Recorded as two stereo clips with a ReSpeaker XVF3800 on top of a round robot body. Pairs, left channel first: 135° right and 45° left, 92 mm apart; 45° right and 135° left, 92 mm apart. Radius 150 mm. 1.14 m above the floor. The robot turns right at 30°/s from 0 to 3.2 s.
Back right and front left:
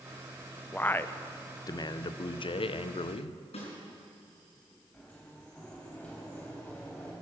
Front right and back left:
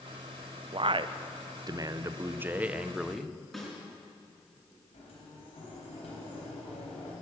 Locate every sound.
0.7 s a man speaking: 150° left, 0.7 m; by 3.4 s 135° right, 0.7 m
3.5 s a snare drum: 135° right, 4.5 m
4.9 s a sliding door: 60° right, 3.5 m